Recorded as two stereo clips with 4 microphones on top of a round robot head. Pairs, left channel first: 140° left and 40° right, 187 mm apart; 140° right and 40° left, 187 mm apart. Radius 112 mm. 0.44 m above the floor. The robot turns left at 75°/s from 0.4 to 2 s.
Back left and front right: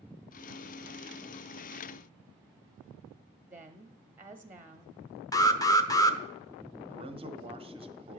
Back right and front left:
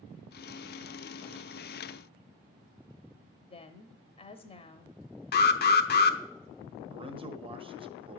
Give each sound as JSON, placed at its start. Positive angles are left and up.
{"t": 3.5, "sound": "a woman speaking", "azimuth_deg": -110, "distance_m": 0.8}
{"t": 5.3, "sound": "an alarm", "azimuth_deg": -150, "distance_m": 0.8}
{"t": 6.9, "sound": "a man speaking", "azimuth_deg": 0, "distance_m": 1.0}